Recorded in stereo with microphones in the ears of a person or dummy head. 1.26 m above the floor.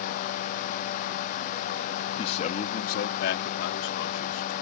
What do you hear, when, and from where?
2.2 s a man speaking: 30° left (ahead or behind); by 4.5 s 75° left (ahead or behind)